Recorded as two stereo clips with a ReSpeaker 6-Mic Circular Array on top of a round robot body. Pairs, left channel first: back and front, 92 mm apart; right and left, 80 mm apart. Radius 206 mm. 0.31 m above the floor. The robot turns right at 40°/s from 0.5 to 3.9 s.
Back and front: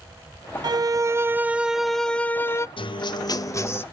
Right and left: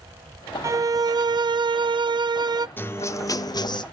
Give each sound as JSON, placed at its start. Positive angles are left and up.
{"t": 0.6, "sound": "a violin", "azimuth_deg": 40, "distance_m": 0.8}
{"t": 2.8, "sound": "a guitar", "azimuth_deg": -155, "distance_m": 0.9}